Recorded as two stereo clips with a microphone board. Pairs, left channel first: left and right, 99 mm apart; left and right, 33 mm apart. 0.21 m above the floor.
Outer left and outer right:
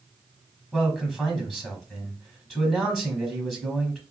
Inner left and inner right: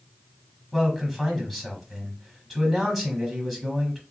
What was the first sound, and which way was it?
A man speaking, 5° left (ahead or behind).